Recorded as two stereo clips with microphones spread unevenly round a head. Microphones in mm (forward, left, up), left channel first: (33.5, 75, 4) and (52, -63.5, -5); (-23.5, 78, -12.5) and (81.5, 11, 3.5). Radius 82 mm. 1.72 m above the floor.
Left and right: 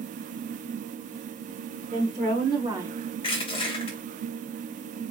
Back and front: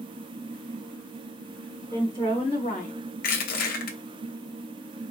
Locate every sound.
1.9 s a woman speaking: 140° right, 1.3 m; by 2.9 s 165° right, 0.6 m
3.2 s crushing: 155° left, 0.8 m